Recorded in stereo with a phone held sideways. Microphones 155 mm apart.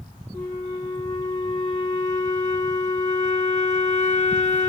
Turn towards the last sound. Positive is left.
turn(degrees=50)  # may be behind; listen again after turning